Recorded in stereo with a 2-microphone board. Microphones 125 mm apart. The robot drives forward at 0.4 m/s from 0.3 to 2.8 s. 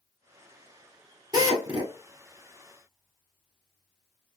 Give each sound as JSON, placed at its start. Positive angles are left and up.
{"t": 1.3, "sound": "a drill", "side_deg": -35, "distance_m": 1.3}